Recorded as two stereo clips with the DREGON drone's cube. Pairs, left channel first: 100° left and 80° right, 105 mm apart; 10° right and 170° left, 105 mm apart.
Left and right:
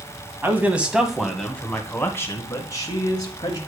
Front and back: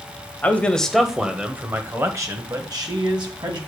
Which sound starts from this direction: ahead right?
A man speaking, at 0.4 s.